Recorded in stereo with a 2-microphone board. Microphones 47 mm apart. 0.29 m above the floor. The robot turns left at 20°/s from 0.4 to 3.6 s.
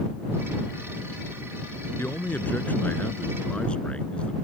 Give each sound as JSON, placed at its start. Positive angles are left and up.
{"t": 2.0, "sound": "a man speaking", "azimuth_deg": 55}